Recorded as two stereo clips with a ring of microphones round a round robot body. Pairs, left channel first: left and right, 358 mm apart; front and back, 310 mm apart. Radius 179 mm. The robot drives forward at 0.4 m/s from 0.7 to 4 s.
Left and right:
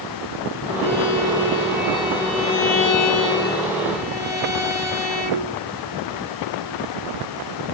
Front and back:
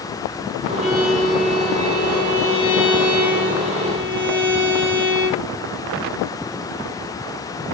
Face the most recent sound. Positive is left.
turn(degrees=100)